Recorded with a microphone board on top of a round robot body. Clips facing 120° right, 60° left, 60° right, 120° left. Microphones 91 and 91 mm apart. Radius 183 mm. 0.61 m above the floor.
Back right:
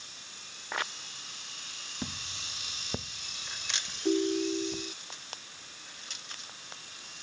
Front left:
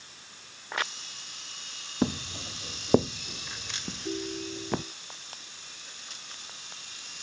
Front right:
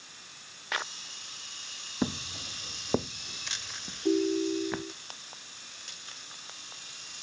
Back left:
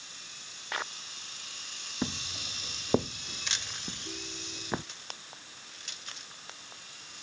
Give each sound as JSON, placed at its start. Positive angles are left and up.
{"t": 2.0, "sound": "footsteps", "azimuth_deg": 10}
{"t": 4.0, "sound": "a ringtone", "azimuth_deg": -55}